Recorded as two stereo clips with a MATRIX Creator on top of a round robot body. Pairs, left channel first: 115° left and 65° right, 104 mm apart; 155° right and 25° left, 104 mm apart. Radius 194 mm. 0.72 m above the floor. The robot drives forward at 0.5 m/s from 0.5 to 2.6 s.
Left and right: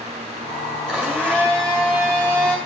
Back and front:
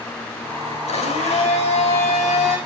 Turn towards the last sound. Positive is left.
turn(degrees=-170)